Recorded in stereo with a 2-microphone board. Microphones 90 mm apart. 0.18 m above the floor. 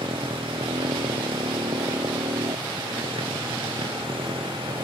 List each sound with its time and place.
0.0 s a motorcycle: 80° right